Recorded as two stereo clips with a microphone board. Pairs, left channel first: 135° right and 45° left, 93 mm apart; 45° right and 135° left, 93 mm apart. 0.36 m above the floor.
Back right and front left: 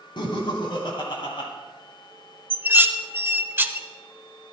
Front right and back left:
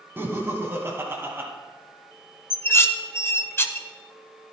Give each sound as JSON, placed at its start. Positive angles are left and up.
{"t": 0.2, "sound": "laughter", "azimuth_deg": -160, "distance_m": 1.8}
{"t": 2.5, "sound": "dishes clattering", "azimuth_deg": -5, "distance_m": 0.6}